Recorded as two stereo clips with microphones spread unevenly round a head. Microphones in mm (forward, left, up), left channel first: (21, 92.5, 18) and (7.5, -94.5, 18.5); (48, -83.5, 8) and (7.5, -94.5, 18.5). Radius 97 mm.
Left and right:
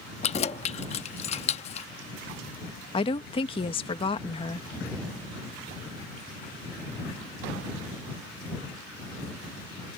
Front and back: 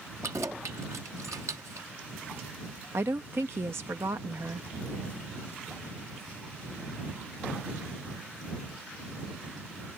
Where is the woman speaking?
145° left.